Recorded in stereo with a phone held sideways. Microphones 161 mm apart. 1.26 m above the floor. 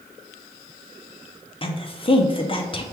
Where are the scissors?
No scissors in this recording.